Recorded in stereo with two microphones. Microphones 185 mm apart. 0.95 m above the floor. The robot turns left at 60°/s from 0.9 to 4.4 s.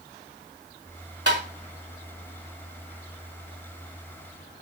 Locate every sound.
1.3 s tapping: 75° right (ahead or behind), 1.7 m; by 1.4 s 70° right (ahead or behind), 1.7 m